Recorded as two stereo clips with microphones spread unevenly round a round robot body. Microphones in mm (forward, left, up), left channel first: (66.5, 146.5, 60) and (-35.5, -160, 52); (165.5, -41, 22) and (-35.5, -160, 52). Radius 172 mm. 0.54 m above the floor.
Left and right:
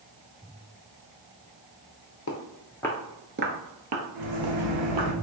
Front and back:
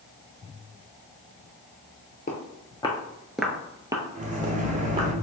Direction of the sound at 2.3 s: 80° left.